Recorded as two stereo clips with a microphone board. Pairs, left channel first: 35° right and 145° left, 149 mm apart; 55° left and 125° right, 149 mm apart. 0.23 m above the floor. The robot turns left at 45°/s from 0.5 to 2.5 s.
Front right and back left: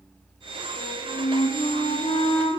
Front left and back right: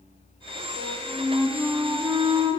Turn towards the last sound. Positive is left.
turn(degrees=-80)